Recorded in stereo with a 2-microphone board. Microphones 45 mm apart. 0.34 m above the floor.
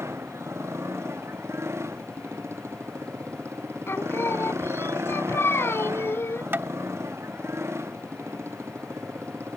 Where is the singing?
65° left (ahead or behind).